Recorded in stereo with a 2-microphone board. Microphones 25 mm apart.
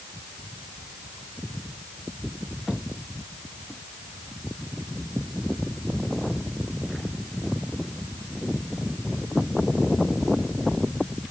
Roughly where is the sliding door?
I don't hear a sliding door.